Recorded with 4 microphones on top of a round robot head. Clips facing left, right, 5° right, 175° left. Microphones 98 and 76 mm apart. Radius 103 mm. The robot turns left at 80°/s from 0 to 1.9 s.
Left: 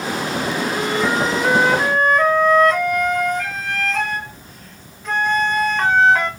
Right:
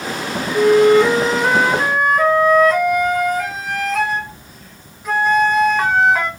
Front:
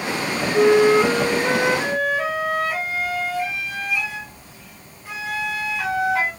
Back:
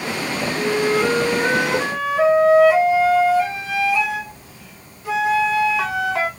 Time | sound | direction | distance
0.5 | a flute | 65° right | 1.3 m